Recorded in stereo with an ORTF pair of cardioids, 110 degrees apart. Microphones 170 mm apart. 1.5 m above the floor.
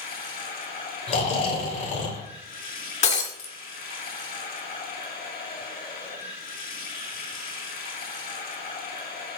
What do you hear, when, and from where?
0.0 s running water: 65° left, 5 m
1.1 s snoring: 50° left, 3 m
3.0 s breaking glass: 40° left, 2 m